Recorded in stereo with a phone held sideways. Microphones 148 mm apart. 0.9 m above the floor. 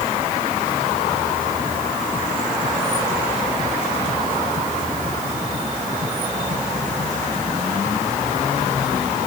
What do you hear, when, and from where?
Only background noise.